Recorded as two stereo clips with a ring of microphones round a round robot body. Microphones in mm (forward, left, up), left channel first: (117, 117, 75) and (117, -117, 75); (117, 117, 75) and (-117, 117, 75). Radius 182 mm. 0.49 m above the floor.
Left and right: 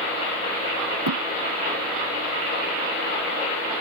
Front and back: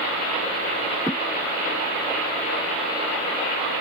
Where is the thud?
90° right.